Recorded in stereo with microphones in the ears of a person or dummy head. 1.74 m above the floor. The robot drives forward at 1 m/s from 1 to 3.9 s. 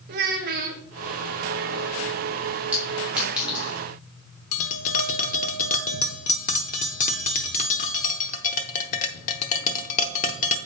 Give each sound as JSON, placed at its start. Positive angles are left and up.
{"t": 0.1, "sound": "a child speaking", "side_deg": -55, "distance_m": 1.0}
{"t": 2.7, "sound": "a clink", "side_deg": -5, "distance_m": 3.0}
{"t": 4.5, "sound": "tapping", "side_deg": 45, "distance_m": 0.7}